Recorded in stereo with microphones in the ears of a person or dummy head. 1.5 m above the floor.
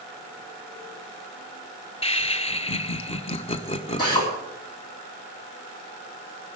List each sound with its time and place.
2.0 s laughter: 25° left (ahead or behind), 1.1 m
4.0 s a drill: 25° left (ahead or behind), 4 m